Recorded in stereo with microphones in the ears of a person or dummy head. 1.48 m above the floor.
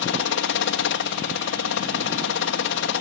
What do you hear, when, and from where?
0.0 s a helicopter: 65° left (ahead or behind)